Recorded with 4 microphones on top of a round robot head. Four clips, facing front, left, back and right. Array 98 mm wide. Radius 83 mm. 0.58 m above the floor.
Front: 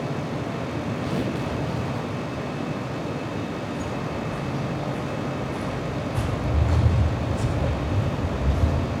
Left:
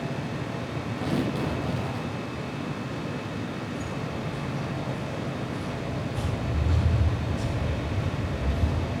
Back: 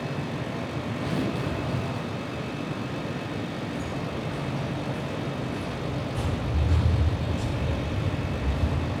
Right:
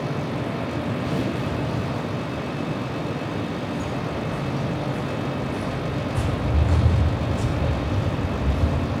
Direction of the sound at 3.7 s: 60° right.